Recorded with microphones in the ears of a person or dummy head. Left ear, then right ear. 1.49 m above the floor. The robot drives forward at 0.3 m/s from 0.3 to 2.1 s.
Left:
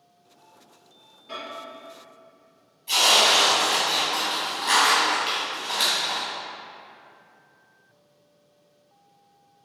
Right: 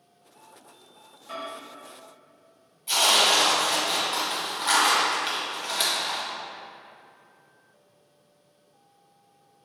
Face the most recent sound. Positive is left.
turn(degrees=-20)  # may be behind; listen again after turning